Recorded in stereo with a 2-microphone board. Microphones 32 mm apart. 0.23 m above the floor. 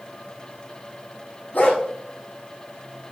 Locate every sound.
1.5 s a dog barking: 75° left (ahead or behind), 5.5 m